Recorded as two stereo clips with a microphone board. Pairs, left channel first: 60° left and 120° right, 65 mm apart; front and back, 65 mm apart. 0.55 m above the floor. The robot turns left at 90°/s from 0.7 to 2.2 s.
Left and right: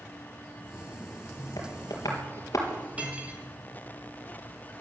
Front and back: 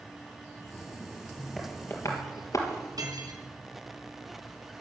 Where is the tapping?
85° left, 3.5 m; by 2.9 s 30° left, 3.5 m.